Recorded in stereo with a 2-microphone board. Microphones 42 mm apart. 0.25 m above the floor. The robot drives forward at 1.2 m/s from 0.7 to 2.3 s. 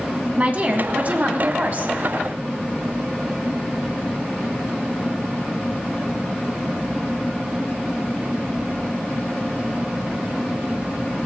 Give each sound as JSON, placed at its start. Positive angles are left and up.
{"t": 0.4, "sound": "a woman speaking", "side_deg": -35, "distance_m": 1.8}